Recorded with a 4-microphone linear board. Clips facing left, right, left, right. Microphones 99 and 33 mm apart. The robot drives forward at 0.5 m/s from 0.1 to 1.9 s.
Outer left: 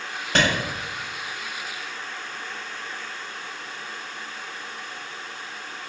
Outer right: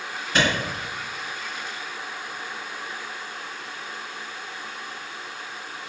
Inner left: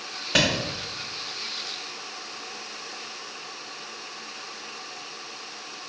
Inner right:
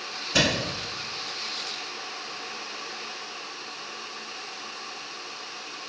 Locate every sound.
0.3 s a clap: 70° left (ahead or behind), 1.3 m